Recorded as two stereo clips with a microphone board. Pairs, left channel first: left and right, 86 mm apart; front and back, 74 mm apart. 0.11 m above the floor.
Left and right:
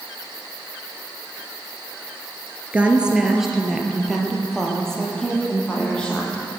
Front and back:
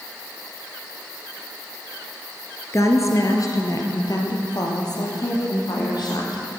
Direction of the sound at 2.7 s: 20° right.